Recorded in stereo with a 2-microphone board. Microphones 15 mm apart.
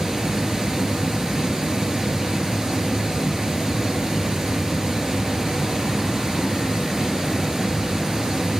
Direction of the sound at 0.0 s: 50° right (ahead or behind).